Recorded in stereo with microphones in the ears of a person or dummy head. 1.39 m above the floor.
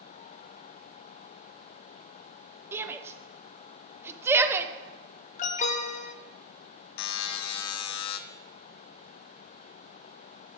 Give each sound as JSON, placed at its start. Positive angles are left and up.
{"t": 2.7, "sound": "a shout", "side_deg": -10, "distance_m": 0.7}
{"t": 5.4, "sound": "an alarm", "side_deg": 35, "distance_m": 0.7}
{"t": 7.0, "sound": "a buzzer", "side_deg": 75, "distance_m": 0.6}